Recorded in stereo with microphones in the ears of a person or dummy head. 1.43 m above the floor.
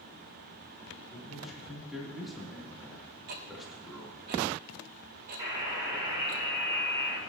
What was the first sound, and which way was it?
A man speaking, centre (ahead or behind).